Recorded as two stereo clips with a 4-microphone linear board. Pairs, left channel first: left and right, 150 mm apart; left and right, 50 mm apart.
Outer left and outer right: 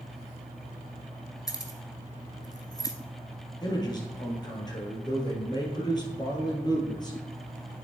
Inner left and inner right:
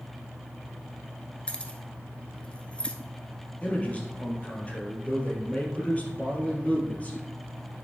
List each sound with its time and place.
1.5 s keys jangling: 25° left (ahead or behind), 0.9 m
3.6 s a man speaking: 30° left (ahead or behind), 2.5 m